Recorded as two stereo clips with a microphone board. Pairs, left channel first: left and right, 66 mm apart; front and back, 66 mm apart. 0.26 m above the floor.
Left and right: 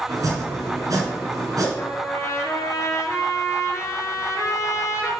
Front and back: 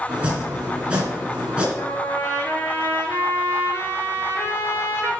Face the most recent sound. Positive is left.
turn(degrees=50)